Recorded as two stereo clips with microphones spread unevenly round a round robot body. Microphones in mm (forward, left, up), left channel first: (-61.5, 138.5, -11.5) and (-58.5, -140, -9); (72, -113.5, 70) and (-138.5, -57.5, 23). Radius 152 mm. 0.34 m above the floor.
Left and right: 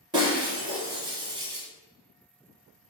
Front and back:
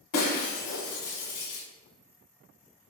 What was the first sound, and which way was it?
Breaking glass, 15° right.